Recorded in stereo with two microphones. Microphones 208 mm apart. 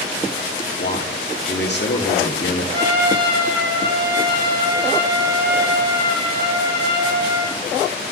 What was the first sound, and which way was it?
A man speaking, 55° left (ahead or behind).